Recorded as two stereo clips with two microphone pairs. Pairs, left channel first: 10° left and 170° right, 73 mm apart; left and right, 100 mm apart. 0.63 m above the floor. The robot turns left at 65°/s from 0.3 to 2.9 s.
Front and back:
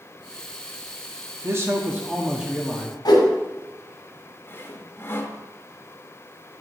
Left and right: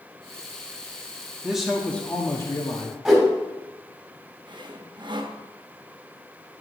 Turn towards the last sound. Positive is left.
turn(degrees=-50)